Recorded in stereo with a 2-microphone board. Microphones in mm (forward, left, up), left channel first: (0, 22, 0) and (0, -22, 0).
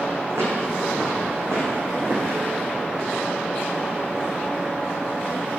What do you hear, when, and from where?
0.3 s footsteps: 75° right (ahead or behind), 4 m; by 2.4 s 60° right (ahead or behind), 4 m